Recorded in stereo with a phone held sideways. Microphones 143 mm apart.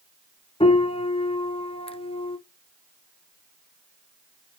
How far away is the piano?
About 0.5 m.